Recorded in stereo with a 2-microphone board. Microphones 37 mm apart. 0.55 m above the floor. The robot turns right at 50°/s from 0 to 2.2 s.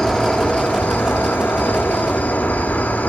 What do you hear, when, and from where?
0.0 s an insect: 20° left, 0.8 m; by 3.1 s 130° left, 0.8 m